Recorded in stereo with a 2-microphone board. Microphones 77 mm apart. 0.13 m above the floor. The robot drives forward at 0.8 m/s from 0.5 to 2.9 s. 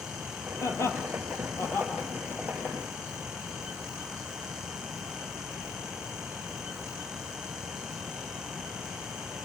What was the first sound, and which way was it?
Laughter, 40° left (ahead or behind).